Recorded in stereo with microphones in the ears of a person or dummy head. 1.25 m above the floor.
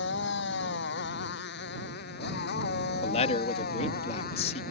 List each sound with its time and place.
0.0 s a motorcycle: 70° left (ahead or behind); by 4.7 s 55° left (ahead or behind)
3.0 s a man speaking: 35° left (ahead or behind)